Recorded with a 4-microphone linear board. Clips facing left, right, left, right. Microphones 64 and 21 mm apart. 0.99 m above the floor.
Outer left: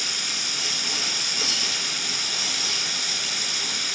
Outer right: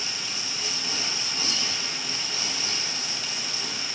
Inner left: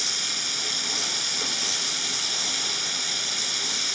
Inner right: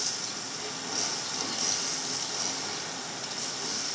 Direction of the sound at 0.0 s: 80° left.